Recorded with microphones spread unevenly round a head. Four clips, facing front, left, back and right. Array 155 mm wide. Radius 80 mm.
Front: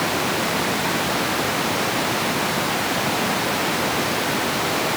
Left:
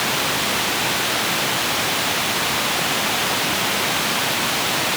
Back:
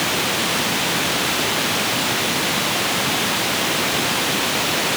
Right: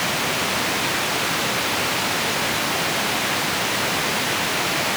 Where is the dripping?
I don't hear dripping.